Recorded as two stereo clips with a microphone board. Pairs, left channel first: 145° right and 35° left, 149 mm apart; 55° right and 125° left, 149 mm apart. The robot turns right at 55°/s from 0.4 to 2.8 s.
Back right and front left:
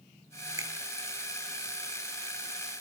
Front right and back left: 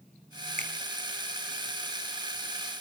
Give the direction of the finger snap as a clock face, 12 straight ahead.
9 o'clock.